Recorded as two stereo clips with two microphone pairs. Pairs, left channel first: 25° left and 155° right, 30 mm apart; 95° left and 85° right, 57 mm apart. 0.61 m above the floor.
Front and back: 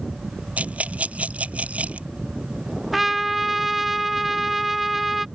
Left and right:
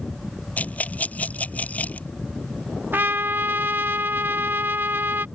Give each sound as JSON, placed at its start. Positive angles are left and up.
{"t": 0.6, "sound": "a rattle", "azimuth_deg": 160}
{"t": 2.9, "sound": "a trumpet", "azimuth_deg": -70}